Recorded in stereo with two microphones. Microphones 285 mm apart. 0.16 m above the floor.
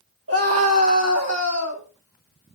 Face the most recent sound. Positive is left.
turn(degrees=-70)  # may be behind; listen again after turning